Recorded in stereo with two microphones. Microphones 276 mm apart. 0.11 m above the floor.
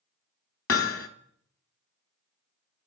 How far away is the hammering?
About 0.6 m.